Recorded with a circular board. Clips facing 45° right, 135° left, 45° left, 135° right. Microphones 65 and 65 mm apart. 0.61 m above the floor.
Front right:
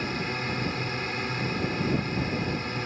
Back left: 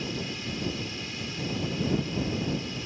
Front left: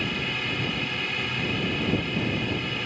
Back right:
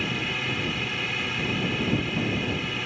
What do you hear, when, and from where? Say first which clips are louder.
0.0 s a drone: front right 4 dB, even; 45° right